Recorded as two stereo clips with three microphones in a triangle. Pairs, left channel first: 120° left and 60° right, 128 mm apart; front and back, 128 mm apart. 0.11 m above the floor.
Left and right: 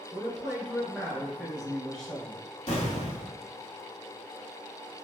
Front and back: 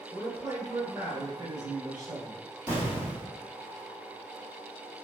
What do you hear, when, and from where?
0.1 s a man speaking: 155° right, 1.4 m
2.7 s an explosion: 110° left, 1.2 m